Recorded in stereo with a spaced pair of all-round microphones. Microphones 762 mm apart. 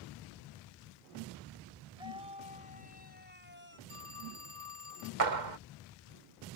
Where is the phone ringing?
35° right (ahead or behind).